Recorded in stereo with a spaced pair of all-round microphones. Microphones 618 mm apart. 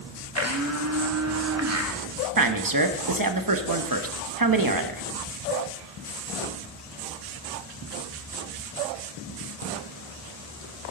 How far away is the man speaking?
About 1.2 m.